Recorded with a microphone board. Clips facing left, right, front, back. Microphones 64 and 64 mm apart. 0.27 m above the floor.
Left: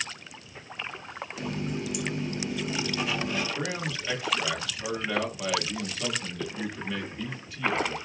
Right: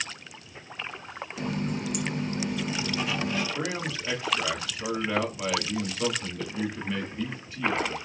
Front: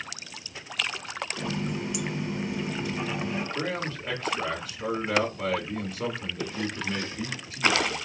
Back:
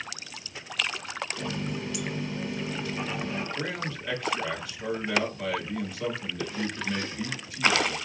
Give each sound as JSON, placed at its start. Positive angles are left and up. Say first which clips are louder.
{"t": 1.4, "sound": "a running tap", "louder": "right 2 dB, front 4 dB", "azimuth_deg": -65, "distance_m": 1.3}
{"t": 3.5, "sound": "a man speaking", "louder": "right 1 dB, front 2 dB", "azimuth_deg": -40, "distance_m": 2.5}